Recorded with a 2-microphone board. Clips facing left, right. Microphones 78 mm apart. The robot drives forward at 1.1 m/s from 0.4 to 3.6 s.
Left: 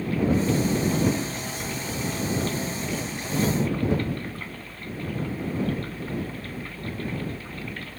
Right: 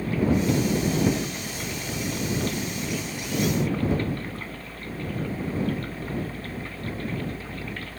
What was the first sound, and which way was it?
Only background noise.